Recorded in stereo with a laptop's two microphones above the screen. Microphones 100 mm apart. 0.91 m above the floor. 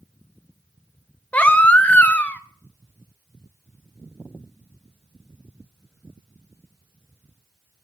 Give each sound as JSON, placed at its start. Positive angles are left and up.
{"t": 1.3, "sound": "a baby crying", "side_deg": 15, "distance_m": 0.5}